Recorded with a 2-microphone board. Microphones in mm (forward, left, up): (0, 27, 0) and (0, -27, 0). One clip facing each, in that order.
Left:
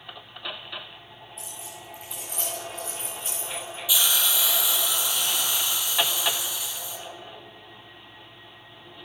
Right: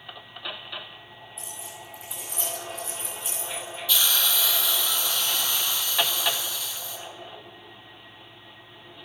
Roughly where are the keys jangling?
Left.